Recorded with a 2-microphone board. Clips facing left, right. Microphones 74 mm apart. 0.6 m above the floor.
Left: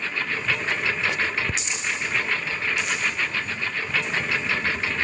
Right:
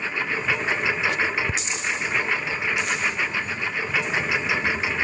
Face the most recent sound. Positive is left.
turn(degrees=-10)  # may be behind; listen again after turning